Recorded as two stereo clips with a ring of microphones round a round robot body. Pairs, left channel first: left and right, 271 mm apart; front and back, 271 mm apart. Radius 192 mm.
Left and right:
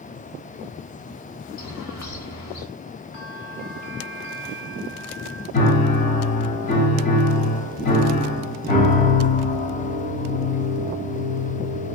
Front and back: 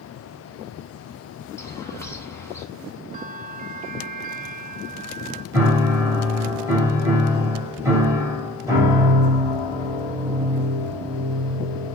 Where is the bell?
115° left, 2.5 m.